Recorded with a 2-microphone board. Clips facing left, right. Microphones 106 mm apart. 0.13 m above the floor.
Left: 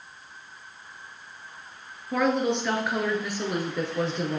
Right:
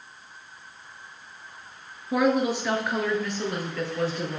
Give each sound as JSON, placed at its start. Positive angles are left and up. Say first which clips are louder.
{"t": 2.1, "sound": "a woman speaking", "louder": "right 1 dB", "side_deg": -10, "distance_m": 1.7}